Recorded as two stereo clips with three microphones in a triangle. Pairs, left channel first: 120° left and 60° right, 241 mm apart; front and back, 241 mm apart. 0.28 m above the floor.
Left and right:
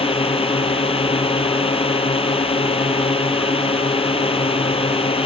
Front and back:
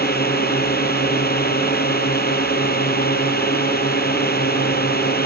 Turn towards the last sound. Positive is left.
turn(degrees=50)